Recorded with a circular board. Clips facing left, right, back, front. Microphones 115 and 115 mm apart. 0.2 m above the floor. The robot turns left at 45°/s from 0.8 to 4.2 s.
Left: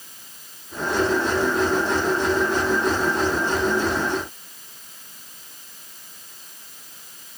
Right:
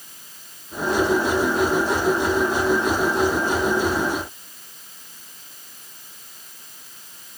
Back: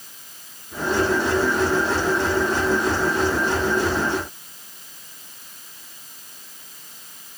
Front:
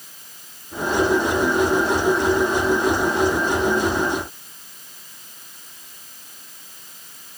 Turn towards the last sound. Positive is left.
No sound to turn to.